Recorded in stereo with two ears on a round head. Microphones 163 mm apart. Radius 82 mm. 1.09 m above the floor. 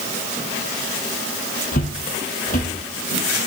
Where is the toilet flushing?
I don't hear a toilet flushing.